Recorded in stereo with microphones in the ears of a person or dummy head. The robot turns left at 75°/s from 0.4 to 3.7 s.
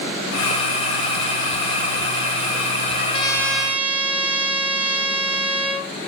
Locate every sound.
3.0 s a trumpet: 45° left, 2 m; by 5.9 s 10° right, 2 m